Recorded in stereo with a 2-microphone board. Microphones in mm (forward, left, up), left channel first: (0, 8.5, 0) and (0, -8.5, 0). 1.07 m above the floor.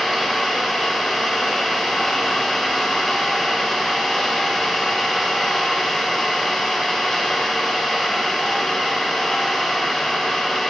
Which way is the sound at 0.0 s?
35° left (ahead or behind).